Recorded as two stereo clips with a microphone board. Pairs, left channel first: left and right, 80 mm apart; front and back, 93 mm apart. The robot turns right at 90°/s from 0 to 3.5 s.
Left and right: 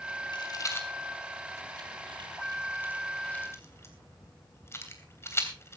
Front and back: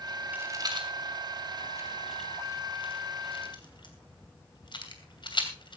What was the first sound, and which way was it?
A rattle, 110° left.